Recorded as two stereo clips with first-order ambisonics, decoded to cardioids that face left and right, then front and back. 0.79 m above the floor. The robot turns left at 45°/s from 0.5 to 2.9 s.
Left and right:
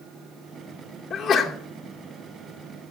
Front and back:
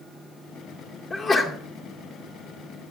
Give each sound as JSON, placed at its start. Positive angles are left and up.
{"t": 1.1, "sound": "a sneeze", "azimuth_deg": 50, "distance_m": 0.7}